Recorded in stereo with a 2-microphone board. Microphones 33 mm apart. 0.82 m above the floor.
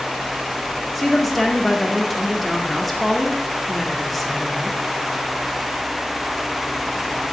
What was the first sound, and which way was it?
A woman speaking, centre (ahead or behind).